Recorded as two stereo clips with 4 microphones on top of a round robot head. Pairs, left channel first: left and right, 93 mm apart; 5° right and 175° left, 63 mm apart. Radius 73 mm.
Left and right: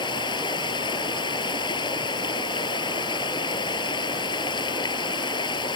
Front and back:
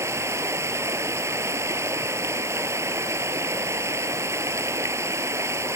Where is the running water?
130° left.